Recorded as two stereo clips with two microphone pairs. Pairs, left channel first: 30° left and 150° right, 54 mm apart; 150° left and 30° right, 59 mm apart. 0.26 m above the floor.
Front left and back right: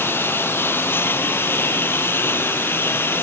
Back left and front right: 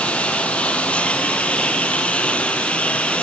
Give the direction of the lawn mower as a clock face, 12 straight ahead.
9 o'clock.